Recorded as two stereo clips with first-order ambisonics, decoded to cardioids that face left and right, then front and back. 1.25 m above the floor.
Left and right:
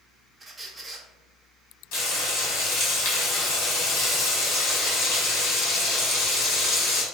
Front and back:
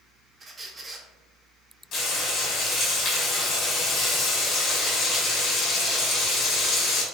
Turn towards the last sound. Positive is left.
turn(degrees=55)